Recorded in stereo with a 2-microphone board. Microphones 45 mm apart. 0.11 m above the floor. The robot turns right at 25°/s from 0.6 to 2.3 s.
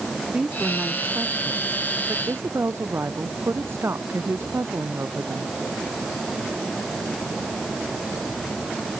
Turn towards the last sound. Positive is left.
turn(degrees=-115)